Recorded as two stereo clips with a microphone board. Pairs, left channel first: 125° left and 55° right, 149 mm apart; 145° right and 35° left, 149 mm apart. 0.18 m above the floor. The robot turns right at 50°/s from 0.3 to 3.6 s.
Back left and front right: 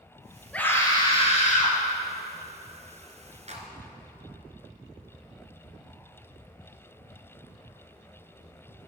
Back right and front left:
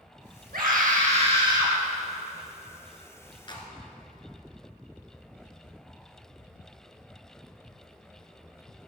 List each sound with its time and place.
0.5 s a scream: 45° left, 4.5 m; by 1.8 s 105° left, 4.5 m
3.5 s a clap: 90° right, 2 m; by 3.7 s 85° right, 2 m